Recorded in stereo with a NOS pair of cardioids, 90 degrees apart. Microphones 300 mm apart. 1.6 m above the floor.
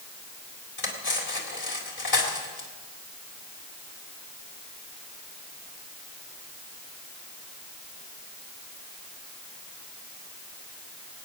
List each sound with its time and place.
0.8 s cutlery clinking: 45° left, 4 m